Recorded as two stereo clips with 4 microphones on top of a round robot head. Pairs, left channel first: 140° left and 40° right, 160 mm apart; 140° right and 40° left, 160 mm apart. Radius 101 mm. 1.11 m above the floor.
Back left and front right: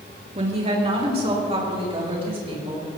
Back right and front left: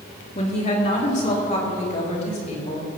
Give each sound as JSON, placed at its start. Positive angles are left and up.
{"t": 0.3, "sound": "a woman speaking", "azimuth_deg": -90, "distance_m": 3.0}